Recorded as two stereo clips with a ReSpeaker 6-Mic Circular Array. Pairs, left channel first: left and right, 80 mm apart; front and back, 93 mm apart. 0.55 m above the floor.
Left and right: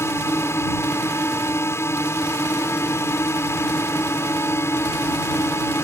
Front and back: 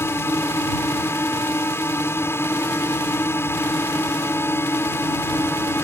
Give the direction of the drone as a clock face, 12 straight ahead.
10 o'clock.